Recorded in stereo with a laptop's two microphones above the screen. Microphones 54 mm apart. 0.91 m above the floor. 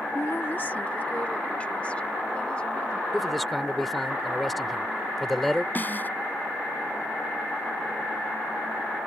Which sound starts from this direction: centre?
A man speaking, at 3.1 s.